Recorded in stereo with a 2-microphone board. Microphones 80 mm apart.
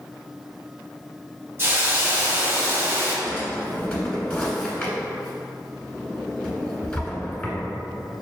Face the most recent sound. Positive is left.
turn(degrees=15)  # may be behind; listen again after turning